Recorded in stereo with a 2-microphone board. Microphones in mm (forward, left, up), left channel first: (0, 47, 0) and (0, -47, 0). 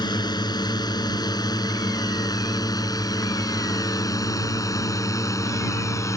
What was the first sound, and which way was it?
A drone, 50° left (ahead or behind).